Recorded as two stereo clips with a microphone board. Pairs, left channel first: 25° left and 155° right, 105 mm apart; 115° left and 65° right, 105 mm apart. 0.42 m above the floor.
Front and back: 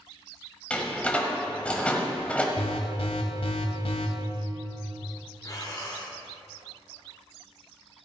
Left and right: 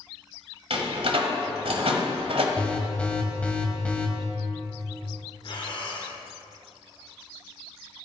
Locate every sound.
0.7 s a door slam: 55° right, 1.4 m
2.6 s an alarm: 35° left, 1.5 m
5.4 s breathing: 80° left, 2 m